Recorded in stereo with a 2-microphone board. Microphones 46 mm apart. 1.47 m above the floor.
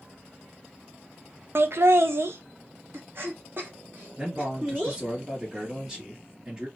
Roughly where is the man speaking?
Centre.